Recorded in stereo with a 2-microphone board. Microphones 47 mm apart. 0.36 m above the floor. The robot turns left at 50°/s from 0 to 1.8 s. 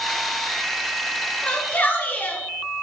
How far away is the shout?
About 5.5 m.